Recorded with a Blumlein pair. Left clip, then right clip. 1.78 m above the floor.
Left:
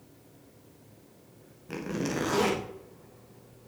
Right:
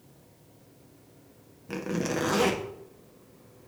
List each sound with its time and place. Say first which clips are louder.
1.7 s a zipper: right 2 dB; 5° right, 1.1 m